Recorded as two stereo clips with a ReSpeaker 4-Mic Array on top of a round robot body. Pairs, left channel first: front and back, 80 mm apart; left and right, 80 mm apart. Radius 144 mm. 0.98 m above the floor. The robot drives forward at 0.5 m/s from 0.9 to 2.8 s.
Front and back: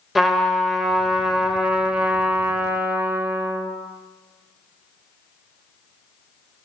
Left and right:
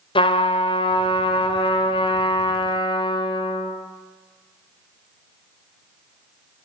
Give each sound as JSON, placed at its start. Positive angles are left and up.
{"t": 0.1, "sound": "a trumpet", "azimuth_deg": 90, "distance_m": 2.5}